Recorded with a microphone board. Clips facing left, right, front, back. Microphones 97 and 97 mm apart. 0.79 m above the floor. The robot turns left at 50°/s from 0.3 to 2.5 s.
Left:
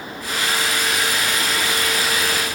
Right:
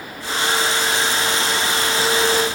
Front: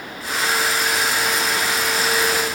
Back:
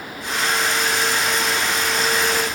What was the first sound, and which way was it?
Only background noise.